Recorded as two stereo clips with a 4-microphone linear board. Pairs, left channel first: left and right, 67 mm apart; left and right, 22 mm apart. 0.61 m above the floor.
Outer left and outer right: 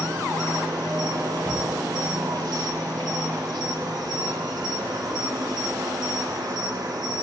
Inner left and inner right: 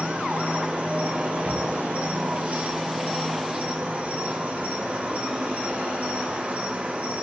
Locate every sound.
0.0 s an insect: 75° right (ahead or behind), 0.8 m
1.4 s a drawer: 60° right (ahead or behind), 1.8 m